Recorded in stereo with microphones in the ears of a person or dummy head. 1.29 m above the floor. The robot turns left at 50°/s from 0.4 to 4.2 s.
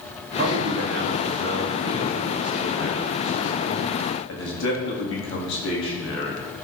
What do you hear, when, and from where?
0.4 s a man speaking: 70° right, 1.8 m; by 6.5 s 100° left, 1.8 m